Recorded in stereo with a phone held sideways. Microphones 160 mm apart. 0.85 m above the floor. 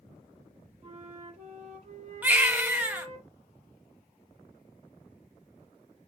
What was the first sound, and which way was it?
A flute, 35° right (ahead or behind).